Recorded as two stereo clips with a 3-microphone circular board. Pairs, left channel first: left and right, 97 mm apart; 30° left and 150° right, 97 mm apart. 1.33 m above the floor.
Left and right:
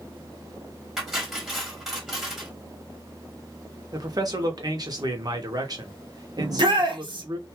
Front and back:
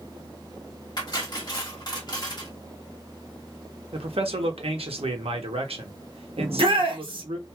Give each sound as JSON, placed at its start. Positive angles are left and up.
{"t": 1.0, "sound": "cutlery clinking", "azimuth_deg": -5, "distance_m": 1.3}
{"t": 3.9, "sound": "a man speaking", "azimuth_deg": -140, "distance_m": 0.8}
{"t": 6.4, "sound": "a shout", "azimuth_deg": -125, "distance_m": 1.1}